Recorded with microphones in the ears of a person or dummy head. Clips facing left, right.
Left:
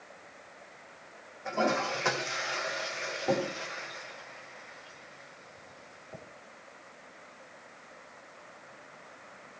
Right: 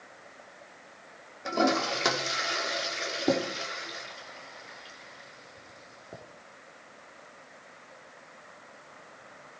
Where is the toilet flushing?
45° right (ahead or behind), 4 m.